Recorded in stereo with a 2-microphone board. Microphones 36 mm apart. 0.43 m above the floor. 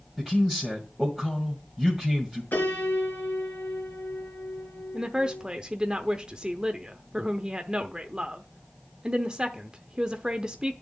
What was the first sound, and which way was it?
A man speaking, centre (ahead or behind).